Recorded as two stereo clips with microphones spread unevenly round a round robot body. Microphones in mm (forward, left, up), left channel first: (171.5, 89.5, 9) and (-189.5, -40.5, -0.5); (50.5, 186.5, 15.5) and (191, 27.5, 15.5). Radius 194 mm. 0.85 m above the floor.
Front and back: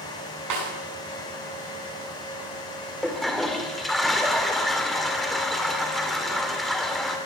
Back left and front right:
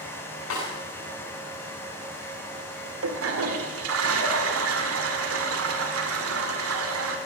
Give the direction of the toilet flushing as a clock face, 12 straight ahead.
2 o'clock.